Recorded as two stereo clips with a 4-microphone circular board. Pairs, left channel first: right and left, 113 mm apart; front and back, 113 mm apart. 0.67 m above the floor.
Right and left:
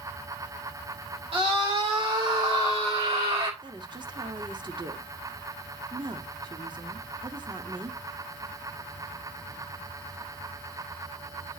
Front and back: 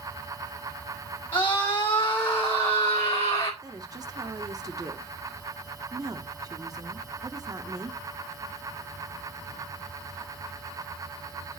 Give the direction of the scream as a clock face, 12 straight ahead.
10 o'clock.